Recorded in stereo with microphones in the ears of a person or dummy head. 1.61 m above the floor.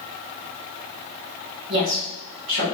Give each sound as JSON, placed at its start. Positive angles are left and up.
{"t": 1.7, "sound": "a woman speaking", "side_deg": -75, "distance_m": 1.9}